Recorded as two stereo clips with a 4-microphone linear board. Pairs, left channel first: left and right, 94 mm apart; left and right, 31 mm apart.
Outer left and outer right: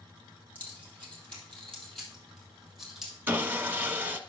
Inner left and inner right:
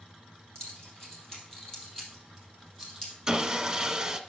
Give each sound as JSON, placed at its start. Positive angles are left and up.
{"t": 0.6, "sound": "keys jangling", "side_deg": 20, "distance_m": 3.5}
{"t": 3.3, "sound": "sawing", "side_deg": -20, "distance_m": 0.7}